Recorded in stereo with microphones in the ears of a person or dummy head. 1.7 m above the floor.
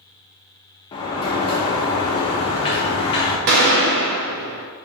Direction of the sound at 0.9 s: 30° left (ahead or behind).